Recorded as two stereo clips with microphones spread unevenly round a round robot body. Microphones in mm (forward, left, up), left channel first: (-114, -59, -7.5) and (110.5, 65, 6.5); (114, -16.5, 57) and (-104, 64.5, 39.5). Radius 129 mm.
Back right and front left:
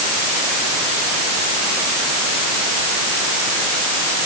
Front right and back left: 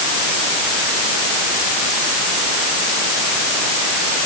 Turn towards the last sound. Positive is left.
No sound to turn to.